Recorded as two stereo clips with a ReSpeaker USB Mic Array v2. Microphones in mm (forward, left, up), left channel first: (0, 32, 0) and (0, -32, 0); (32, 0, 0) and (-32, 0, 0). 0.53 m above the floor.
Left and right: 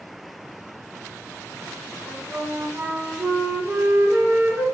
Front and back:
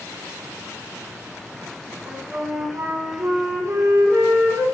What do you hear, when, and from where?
2.1 s a flute: 150° right, 0.9 m